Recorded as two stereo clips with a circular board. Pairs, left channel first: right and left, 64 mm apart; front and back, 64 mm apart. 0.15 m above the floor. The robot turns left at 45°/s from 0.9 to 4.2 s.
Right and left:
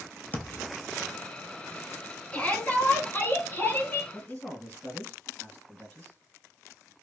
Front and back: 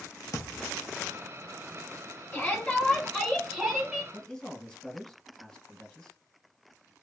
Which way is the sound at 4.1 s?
65° right.